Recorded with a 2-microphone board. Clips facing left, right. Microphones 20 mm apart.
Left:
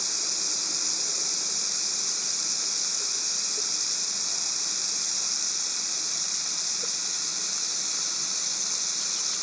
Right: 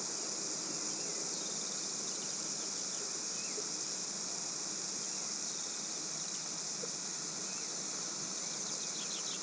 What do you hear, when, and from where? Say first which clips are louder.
0.0 s running water: left 12 dB; 60° left (ahead or behind)